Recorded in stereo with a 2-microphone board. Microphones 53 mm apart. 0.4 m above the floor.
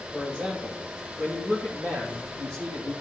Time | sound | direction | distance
0.1 | a man speaking | 30° right (ahead or behind) | 2.5 m